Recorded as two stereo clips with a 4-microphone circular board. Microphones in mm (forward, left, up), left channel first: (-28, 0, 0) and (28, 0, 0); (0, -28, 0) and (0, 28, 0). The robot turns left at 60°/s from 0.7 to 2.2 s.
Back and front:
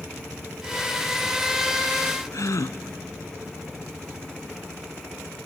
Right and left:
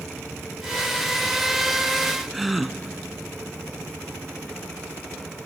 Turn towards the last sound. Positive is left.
turn(degrees=175)